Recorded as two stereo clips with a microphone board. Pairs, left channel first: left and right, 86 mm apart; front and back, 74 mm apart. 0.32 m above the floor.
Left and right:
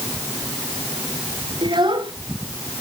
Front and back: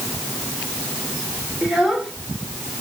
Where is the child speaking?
95° right, 4 m.